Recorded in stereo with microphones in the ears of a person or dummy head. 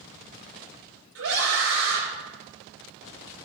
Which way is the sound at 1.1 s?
85° right.